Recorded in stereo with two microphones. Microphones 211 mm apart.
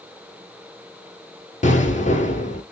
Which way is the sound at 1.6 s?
35° left (ahead or behind).